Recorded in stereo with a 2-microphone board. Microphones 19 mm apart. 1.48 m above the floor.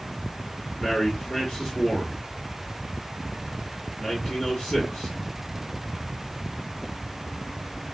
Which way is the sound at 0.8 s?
55° left (ahead or behind).